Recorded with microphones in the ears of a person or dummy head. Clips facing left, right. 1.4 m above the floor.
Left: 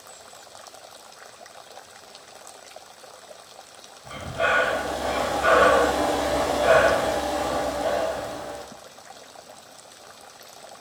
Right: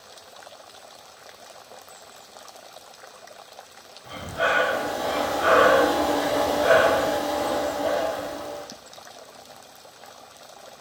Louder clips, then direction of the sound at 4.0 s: Even; 10° right (ahead or behind).